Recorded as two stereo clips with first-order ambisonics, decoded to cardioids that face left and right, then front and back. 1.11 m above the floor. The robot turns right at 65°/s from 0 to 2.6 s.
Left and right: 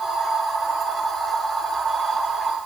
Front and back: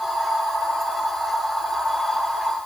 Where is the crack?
No crack in this recording.